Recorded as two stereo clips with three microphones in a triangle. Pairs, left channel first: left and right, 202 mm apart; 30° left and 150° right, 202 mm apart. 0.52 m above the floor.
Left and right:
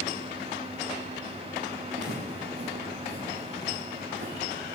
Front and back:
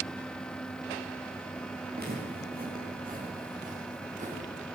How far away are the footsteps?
About 8 m.